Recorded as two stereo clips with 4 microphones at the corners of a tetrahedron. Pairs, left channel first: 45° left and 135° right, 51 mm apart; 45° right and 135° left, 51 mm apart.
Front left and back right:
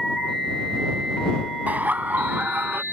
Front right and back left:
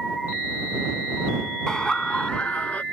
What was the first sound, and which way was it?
Laughter, 110° right.